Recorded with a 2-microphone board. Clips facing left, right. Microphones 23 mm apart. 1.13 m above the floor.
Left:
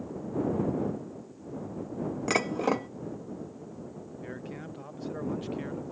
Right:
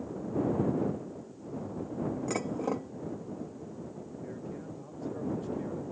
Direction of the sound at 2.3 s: 70° left (ahead or behind).